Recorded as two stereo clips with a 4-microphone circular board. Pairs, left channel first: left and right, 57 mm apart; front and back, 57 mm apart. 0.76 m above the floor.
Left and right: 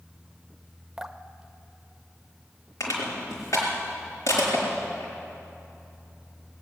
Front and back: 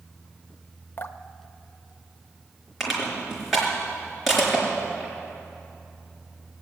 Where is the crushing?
95° left, 4 m.